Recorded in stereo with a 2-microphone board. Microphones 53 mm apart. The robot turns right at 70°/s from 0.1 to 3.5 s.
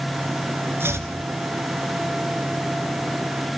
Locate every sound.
0.8 s chopping: 45° right (ahead or behind), 1.9 m; by 1.1 s 65° right (ahead or behind), 1.9 m